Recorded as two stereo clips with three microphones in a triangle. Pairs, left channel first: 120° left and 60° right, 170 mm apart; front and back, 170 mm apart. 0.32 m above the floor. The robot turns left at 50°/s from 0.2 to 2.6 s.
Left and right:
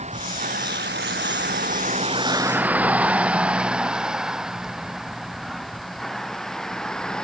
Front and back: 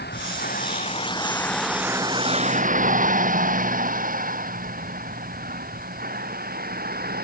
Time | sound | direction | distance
0.0 | a vehicle | 10° right | ?